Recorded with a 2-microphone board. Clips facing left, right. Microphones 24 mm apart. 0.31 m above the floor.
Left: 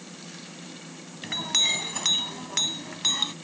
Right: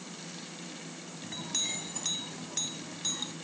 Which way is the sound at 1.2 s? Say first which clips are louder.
Left 11 dB; 50° left (ahead or behind).